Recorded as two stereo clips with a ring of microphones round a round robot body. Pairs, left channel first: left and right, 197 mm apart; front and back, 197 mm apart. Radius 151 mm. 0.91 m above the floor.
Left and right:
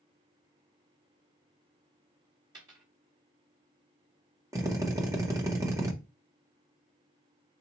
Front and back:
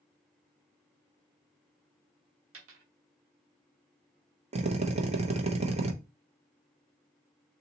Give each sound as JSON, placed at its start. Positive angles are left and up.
{"t": 2.5, "sound": "a dropped coin", "azimuth_deg": -165, "distance_m": 0.8}
{"t": 4.5, "sound": "a drill", "azimuth_deg": -155, "distance_m": 0.7}